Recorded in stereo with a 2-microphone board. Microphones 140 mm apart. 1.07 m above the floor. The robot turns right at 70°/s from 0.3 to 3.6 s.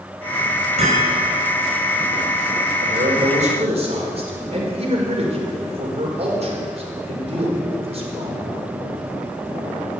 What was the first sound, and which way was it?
Hammering, 55° right (ahead or behind).